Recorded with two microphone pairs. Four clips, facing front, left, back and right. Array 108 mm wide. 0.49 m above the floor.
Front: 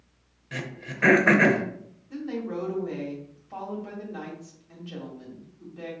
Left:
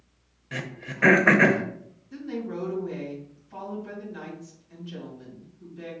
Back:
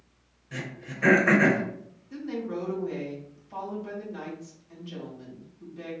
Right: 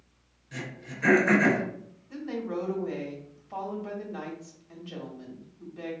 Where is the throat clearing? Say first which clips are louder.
Left 3 dB, front 2 dB; 70° left, 0.7 m.